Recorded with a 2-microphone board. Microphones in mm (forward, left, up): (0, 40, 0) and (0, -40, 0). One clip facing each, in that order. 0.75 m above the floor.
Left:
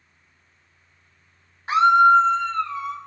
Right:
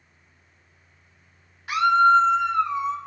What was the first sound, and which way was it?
A scream, 30° left (ahead or behind).